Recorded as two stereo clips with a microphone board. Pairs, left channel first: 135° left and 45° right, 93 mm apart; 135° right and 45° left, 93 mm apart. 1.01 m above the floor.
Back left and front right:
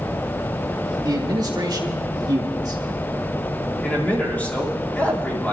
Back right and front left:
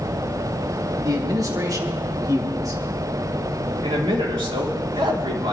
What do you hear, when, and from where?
1.0 s a man speaking: 5° right, 2.5 m
3.8 s a man speaking: 60° left, 3 m